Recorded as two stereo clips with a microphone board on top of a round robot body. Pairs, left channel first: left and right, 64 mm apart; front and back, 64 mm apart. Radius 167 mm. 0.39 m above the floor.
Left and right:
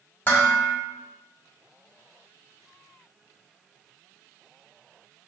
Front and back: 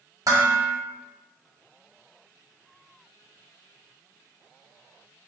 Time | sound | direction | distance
0.3 | dishes clattering | 155° left | 1.1 m